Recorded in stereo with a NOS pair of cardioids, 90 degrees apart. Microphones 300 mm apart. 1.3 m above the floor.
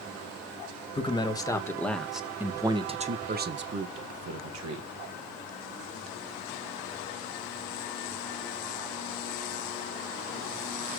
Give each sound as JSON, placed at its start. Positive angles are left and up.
{"t": 0.9, "sound": "a man speaking", "azimuth_deg": 20, "distance_m": 1.9}